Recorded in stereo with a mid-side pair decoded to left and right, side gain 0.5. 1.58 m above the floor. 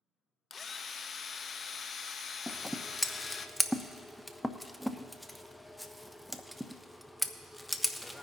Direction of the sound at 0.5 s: 40° left.